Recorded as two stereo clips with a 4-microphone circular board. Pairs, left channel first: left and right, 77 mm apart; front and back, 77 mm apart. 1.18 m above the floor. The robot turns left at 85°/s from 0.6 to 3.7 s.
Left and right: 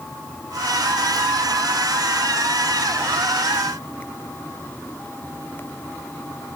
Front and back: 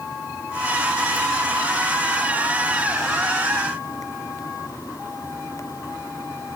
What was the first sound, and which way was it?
Only background noise.